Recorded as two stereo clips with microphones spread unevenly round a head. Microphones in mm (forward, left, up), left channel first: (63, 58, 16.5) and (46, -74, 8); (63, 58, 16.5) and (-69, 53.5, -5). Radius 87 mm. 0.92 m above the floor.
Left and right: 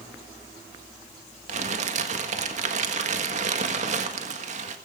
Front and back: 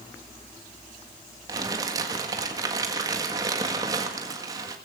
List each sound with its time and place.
1.5 s crumpling: 120° right, 1.5 m